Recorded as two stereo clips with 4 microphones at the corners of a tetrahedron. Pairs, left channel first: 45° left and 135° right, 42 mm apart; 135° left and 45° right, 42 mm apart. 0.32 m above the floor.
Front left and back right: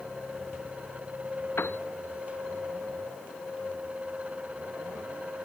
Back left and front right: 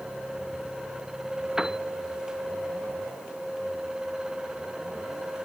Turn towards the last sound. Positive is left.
turn(degrees=30)